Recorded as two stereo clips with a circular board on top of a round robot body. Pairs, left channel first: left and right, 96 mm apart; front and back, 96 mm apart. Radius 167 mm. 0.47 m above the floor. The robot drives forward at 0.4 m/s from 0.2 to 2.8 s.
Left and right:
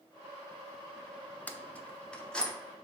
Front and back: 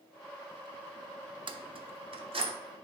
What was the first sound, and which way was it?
Keys jangling, 165° left.